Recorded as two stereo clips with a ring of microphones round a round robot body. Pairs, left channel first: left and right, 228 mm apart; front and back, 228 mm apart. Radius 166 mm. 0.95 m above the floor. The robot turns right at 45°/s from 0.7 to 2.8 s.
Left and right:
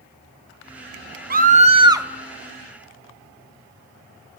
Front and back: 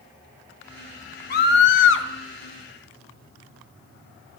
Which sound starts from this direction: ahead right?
A scream, at 1.3 s.